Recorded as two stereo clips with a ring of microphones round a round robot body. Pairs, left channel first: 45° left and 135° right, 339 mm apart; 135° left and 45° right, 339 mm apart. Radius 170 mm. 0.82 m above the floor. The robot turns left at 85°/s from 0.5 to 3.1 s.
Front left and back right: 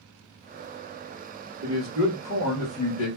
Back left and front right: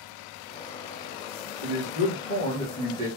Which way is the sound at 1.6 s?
150° left.